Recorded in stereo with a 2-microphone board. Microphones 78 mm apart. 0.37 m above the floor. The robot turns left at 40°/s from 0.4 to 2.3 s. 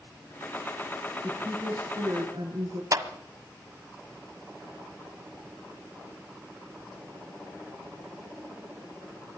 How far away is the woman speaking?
About 6 m.